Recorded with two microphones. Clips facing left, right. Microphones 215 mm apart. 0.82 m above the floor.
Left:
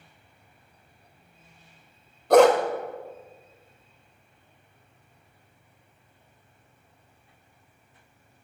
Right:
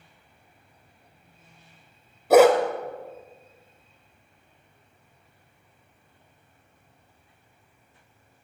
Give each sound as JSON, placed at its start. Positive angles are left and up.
{"t": 2.3, "sound": "a dog barking", "side_deg": -10, "distance_m": 0.7}